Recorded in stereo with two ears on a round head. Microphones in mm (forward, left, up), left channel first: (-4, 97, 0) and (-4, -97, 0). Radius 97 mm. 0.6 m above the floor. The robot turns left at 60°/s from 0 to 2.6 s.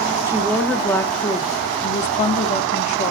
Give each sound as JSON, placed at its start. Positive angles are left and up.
{"t": 0.2, "sound": "a woman speaking", "azimuth_deg": -160, "distance_m": 1.1}